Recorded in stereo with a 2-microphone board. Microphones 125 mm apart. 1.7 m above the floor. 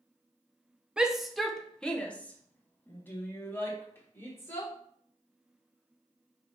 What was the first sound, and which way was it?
A shout, 5° right (ahead or behind).